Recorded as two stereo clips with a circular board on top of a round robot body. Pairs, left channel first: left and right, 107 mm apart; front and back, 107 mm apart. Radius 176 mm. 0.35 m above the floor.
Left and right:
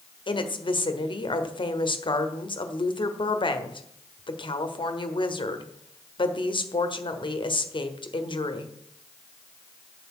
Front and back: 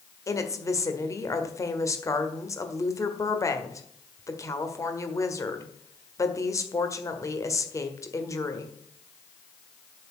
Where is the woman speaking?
60° left, 1.7 m.